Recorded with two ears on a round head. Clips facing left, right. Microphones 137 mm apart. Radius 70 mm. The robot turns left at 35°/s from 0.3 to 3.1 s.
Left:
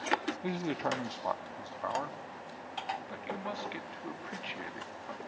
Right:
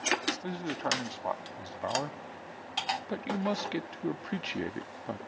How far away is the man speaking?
About 0.9 m.